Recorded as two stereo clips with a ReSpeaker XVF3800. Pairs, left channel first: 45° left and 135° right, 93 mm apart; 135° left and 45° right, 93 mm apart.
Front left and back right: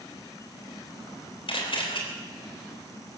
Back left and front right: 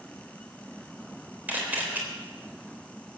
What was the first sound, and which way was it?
A camera shutter, 25° left.